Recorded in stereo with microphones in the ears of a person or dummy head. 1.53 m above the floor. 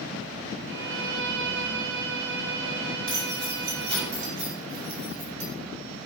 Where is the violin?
60° right (ahead or behind), 2.5 m.